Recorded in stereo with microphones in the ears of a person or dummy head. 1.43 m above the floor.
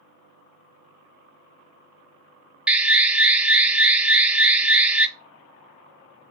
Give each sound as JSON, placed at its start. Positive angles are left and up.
{"t": 2.7, "sound": "an alarm", "side_deg": -10, "distance_m": 0.9}